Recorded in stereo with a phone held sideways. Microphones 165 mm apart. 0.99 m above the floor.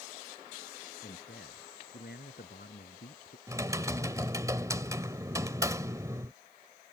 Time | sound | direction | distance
1.0 | a man speaking | 80° left | ?
3.5 | typing on a keyboard | 20° right (ahead or behind) | ?